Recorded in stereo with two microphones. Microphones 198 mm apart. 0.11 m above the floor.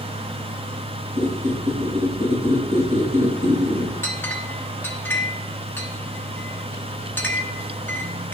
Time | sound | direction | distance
1.2 | a squeak | 40° right (ahead or behind) | 3 m
4.0 | a clink | 10° left (ahead or behind) | 0.7 m